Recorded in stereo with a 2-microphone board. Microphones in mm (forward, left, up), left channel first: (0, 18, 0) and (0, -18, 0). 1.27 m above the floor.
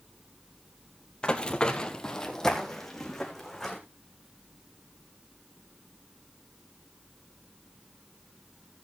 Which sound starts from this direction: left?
Running footsteps, at 1.2 s.